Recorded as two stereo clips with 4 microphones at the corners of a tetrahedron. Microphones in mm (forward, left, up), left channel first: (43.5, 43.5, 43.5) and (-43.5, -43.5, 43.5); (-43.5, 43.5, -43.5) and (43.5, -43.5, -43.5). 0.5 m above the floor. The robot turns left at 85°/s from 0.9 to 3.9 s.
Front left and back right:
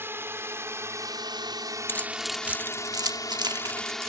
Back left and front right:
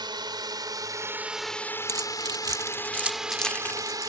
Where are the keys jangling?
15° right; by 4.1 s 175° left.